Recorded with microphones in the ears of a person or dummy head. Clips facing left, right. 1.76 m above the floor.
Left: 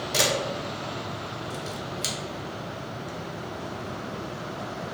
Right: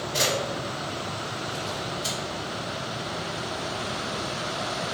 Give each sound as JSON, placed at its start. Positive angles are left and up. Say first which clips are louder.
{"t": 0.1, "sound": "a camera shutter", "louder": "left 1 dB", "side_deg": 75, "distance_m": 1.2}